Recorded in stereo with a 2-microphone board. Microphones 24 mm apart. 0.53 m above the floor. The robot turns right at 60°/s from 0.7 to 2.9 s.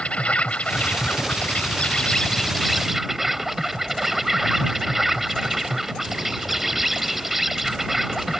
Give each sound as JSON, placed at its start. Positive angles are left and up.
{"t": 0.0, "sound": "an insect", "azimuth_deg": 60}